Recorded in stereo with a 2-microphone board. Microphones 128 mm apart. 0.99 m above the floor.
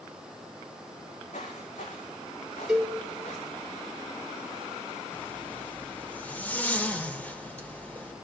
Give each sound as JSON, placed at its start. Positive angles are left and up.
{"t": 1.0, "sound": "footsteps", "side_deg": 70, "distance_m": 3.5}
{"t": 2.7, "sound": "a cowbell", "side_deg": -5, "distance_m": 5.0}
{"t": 5.1, "sound": "a zipper", "side_deg": 15, "distance_m": 2.5}